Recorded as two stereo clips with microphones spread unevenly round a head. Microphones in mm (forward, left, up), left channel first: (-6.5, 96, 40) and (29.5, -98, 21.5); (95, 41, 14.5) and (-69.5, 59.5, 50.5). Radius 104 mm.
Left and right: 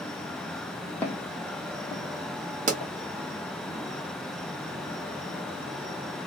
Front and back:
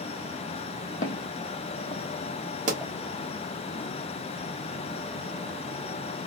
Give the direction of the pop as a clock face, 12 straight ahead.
5 o'clock.